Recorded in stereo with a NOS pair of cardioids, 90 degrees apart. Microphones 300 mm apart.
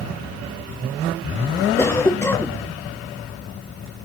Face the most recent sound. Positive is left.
turn(degrees=10)